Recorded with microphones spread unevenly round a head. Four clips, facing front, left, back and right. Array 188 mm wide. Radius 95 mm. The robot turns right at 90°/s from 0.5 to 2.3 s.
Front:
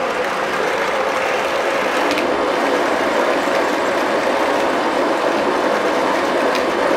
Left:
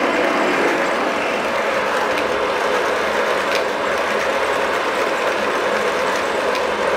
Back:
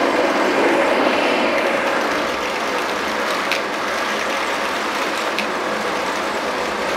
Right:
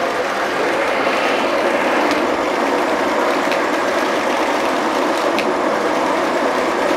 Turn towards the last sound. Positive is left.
turn(degrees=-60)